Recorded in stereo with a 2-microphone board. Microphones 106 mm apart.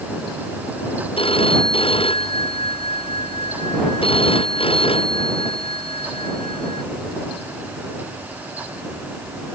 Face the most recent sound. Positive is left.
turn(degrees=60)  # may be behind; listen again after turning